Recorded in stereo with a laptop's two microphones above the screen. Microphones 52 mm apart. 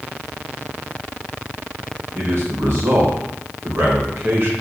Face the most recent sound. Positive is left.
turn(degrees=-50)  # may be behind; listen again after turning